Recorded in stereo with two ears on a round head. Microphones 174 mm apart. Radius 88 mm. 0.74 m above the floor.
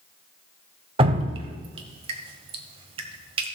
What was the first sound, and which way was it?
Dripping, 30° right (ahead or behind).